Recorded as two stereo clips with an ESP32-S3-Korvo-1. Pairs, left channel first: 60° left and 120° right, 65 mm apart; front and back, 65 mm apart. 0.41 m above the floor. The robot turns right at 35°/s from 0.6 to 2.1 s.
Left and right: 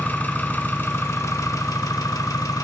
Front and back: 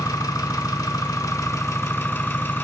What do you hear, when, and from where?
0.0 s an engine running: straight ahead, 0.9 m; by 2.6 s 50° left, 0.9 m